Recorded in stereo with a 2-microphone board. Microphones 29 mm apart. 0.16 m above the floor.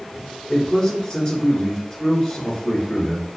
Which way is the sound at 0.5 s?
20° left (ahead or behind).